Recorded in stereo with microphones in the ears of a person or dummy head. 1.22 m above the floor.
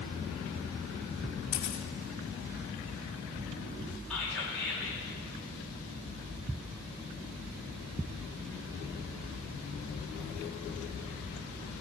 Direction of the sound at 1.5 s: 40° left (ahead or behind).